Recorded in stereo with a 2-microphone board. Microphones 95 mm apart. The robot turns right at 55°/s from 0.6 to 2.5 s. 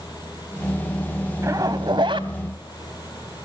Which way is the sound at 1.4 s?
145° right.